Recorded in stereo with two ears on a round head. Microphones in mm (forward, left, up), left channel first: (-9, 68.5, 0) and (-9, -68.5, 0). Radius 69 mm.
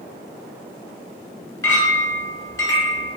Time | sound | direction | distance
1.6 | a clink | 15° left (ahead or behind) | 1.8 m